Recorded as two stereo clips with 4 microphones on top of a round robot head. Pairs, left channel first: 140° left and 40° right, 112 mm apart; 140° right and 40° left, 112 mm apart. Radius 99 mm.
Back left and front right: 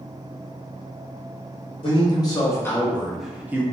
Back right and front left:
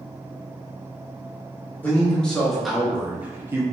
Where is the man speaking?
150° left, 1.1 m; by 3.6 s 5° left, 0.8 m.